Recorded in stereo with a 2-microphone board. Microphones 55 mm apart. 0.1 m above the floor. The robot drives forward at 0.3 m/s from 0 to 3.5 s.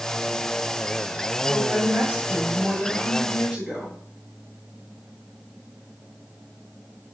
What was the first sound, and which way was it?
A woman speaking, 20° right (ahead or behind).